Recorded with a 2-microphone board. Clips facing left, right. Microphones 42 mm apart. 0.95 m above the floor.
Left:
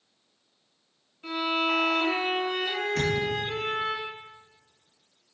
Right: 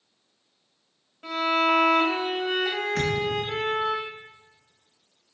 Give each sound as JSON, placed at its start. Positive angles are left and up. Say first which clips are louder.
{"t": 1.2, "sound": "a violin", "louder": "right 4 dB", "side_deg": -60, "distance_m": 2.0}
{"t": 3.0, "sound": "a thud", "louder": "even", "side_deg": -60, "distance_m": 2.5}